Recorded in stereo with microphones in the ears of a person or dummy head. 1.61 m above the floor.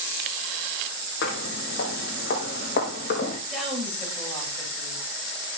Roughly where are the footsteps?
Left.